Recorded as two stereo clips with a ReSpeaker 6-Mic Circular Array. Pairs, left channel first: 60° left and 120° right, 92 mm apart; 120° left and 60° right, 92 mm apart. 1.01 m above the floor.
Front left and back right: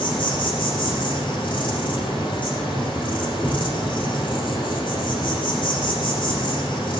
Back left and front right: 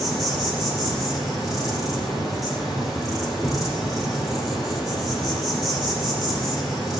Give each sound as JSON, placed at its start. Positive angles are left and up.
{"t": 0.0, "sound": "an insect", "azimuth_deg": 25, "distance_m": 8.0}